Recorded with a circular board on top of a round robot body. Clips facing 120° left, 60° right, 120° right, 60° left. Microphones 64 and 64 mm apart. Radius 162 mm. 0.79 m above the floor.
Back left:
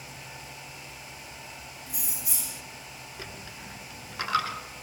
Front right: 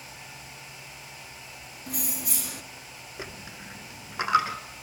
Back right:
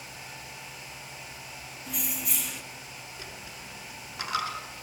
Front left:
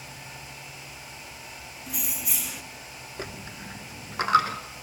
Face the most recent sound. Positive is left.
turn(degrees=10)